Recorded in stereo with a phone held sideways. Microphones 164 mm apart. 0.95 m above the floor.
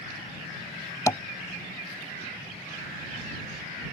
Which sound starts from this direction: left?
Tapping, at 1.1 s.